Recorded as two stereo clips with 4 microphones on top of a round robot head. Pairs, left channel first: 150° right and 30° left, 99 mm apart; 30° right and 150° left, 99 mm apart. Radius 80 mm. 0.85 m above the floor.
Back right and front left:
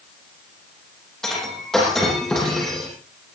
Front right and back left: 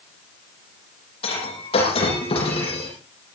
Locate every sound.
1.2 s breaking glass: 60° right, 8.5 m